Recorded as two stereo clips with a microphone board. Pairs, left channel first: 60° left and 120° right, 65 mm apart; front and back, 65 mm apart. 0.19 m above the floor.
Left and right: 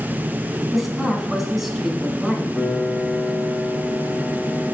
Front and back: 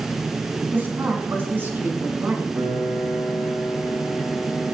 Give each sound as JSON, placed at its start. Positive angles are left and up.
{"t": 0.7, "sound": "a woman speaking", "azimuth_deg": 155, "distance_m": 1.7}
{"t": 2.5, "sound": "a piano", "azimuth_deg": 160, "distance_m": 4.5}